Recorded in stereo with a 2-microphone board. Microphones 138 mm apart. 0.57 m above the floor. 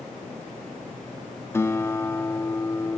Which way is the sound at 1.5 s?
20° left (ahead or behind).